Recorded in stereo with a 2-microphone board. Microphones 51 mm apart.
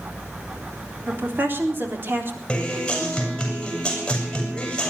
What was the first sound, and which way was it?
A woman speaking, 40° right (ahead or behind).